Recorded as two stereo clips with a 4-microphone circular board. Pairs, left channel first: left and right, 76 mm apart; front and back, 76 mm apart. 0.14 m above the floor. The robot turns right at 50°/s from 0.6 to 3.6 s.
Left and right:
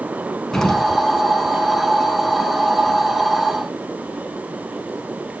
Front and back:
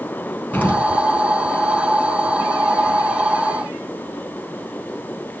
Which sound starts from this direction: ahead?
An explosion, at 0.5 s.